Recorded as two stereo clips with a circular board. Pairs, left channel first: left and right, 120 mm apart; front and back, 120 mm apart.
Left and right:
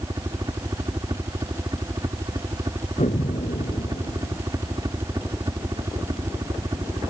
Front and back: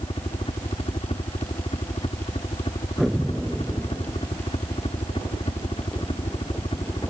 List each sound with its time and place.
0.0 s a helicopter: 35° right
3.0 s an explosion: 95° left